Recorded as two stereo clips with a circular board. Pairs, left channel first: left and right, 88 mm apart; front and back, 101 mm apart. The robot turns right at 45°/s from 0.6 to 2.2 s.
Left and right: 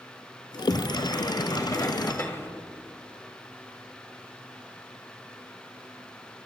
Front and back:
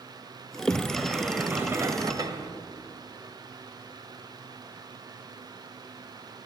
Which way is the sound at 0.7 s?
75° left.